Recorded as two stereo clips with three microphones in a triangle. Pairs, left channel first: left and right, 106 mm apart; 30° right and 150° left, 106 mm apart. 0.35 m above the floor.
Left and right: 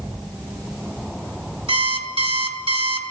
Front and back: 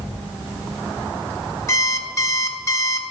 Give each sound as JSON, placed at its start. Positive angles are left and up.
{"t": 1.7, "sound": "an alarm clock", "azimuth_deg": -85, "distance_m": 1.0}